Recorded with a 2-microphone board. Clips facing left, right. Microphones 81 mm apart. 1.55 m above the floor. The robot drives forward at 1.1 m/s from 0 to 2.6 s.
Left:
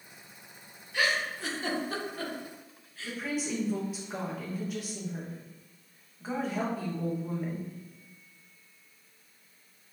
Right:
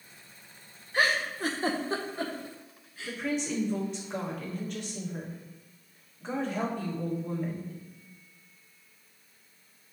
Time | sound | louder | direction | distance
0.9 | a giggle | right 2 dB | 40° right (ahead or behind) | 0.8 m
3.0 | a woman speaking | right 2 dB | 5° left (ahead or behind) | 1.6 m